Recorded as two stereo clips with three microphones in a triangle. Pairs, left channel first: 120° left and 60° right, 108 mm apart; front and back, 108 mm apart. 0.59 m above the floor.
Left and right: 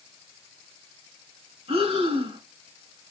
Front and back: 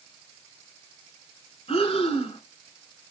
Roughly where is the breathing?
Ahead right.